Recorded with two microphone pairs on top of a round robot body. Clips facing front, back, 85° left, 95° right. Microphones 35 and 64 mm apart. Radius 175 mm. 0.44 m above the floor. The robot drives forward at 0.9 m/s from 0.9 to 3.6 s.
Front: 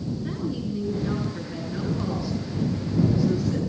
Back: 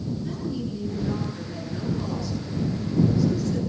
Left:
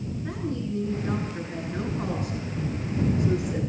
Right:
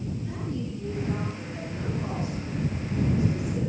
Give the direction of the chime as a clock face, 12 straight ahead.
No chime in this recording.